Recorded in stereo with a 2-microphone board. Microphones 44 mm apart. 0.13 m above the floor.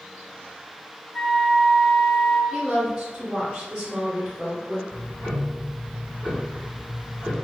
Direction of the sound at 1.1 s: 15° left (ahead or behind).